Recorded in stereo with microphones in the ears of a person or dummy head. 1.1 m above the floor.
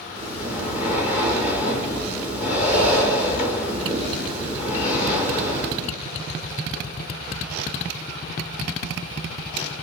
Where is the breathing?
10° right (ahead or behind), 1.0 m.